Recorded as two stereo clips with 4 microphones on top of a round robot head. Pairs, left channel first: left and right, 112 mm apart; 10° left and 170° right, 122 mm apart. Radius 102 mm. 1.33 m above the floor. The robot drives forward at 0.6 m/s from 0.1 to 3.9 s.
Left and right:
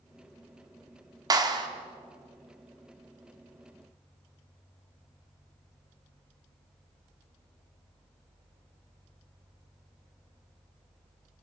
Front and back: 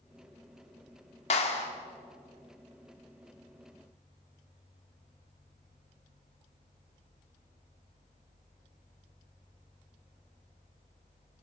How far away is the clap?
About 2 m.